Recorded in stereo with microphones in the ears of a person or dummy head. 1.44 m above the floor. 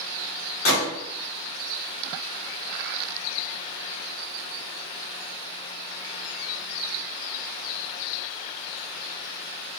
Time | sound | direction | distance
0.7 | a gunshot | 65° left (ahead or behind) | 2.5 m